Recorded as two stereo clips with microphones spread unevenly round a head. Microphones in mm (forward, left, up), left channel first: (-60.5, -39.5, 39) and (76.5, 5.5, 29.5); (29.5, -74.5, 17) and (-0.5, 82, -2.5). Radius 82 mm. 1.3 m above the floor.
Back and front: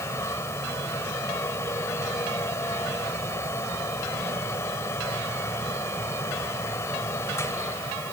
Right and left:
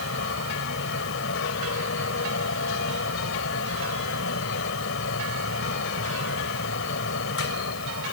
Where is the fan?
90° right.